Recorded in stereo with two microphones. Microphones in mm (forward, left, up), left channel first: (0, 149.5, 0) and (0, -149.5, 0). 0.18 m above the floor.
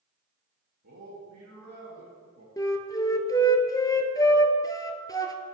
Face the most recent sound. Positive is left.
turn(degrees=10)  # may be behind; listen again after turning